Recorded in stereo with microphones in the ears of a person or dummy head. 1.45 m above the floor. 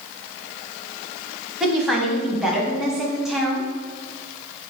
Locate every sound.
1.6 s a woman speaking: centre (ahead or behind), 0.6 m